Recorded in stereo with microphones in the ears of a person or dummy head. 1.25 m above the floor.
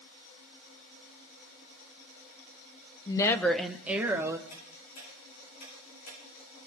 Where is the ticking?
50° left (ahead or behind), 9 m.